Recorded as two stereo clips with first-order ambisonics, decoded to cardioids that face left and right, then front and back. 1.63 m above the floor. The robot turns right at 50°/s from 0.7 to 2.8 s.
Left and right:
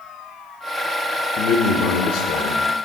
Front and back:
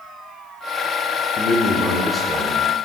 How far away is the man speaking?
About 1.2 m.